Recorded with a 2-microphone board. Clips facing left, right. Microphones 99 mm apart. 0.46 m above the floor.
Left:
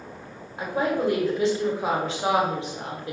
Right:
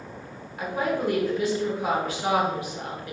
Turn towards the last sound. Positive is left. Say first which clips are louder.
# left 2 dB
turn(degrees=25)  # may be behind; listen again after turning